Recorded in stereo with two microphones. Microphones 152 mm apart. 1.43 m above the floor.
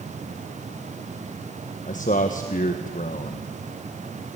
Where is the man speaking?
60° left (ahead or behind), 1.4 m.